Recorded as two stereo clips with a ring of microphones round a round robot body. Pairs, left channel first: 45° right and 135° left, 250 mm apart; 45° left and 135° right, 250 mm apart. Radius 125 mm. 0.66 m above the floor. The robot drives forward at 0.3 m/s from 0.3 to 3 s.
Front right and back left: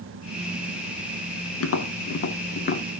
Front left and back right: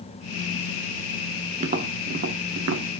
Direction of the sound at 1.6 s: 75° right.